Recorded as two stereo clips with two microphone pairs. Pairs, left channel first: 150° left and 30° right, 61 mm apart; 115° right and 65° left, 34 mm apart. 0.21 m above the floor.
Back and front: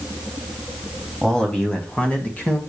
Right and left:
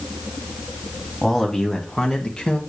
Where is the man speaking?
145° right, 1.4 m; by 2.6 s 160° right, 2 m.